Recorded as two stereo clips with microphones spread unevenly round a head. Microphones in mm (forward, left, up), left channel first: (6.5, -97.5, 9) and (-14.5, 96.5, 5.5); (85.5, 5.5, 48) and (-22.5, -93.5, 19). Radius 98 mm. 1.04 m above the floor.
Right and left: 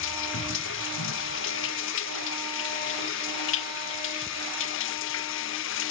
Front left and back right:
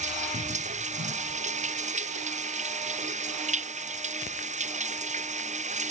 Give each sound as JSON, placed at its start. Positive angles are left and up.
{"t": 0.0, "sound": "running water", "azimuth_deg": -105}